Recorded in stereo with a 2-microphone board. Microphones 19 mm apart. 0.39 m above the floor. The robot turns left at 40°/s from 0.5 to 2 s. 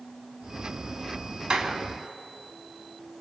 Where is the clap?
65° right (ahead or behind), 3 m; by 1.8 s 70° right (ahead or behind), 3 m.